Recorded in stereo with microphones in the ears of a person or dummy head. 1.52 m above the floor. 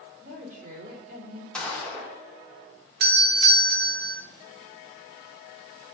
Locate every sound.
0.2 s a woman speaking: 45° right (ahead or behind), 4 m
1.5 s a gunshot: centre (ahead or behind), 1.7 m
3.0 s a doorbell: 50° right (ahead or behind), 0.8 m